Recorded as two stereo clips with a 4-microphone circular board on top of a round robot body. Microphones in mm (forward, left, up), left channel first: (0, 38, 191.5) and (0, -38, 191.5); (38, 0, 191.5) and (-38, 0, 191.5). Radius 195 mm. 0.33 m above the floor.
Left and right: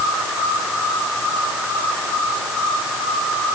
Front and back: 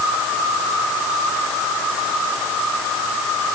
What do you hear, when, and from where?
Only background noise.